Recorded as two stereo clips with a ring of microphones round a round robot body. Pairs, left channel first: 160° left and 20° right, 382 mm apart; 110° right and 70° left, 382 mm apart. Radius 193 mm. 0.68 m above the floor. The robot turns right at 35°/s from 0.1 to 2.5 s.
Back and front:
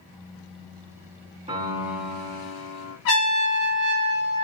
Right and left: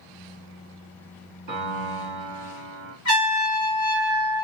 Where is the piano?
45° left, 1.5 m; by 3.0 s 80° left, 1.5 m.